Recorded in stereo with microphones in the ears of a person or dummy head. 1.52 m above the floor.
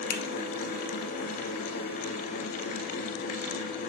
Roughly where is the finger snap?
Left.